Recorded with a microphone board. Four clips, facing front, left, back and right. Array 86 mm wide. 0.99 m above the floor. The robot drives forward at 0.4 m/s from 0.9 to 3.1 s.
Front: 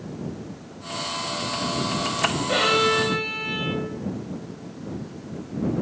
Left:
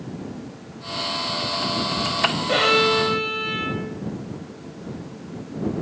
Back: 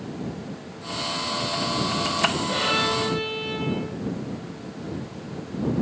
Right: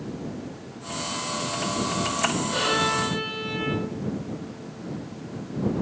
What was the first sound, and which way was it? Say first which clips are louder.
A violin: left 6 dB, front 4 dB; 70° left.